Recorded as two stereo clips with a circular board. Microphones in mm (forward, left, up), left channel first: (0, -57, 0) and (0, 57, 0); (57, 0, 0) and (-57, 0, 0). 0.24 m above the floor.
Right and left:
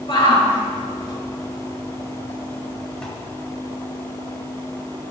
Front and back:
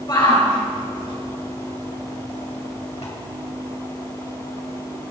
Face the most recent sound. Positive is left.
turn(degrees=-5)